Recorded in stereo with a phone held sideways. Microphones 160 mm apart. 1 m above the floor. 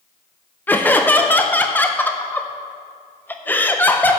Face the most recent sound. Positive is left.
turn(degrees=10)  # may be behind; listen again after turning